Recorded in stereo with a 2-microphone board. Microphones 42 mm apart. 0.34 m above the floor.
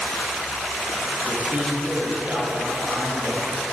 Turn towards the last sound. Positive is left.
turn(degrees=-40)  # may be behind; listen again after turning